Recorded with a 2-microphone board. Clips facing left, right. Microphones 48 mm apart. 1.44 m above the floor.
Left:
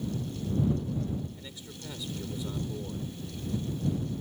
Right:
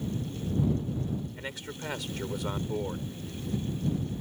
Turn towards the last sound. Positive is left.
turn(degrees=-85)